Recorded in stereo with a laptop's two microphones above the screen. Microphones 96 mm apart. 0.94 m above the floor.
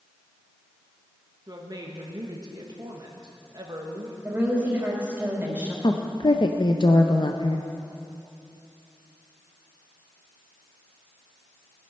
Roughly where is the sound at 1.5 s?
Right.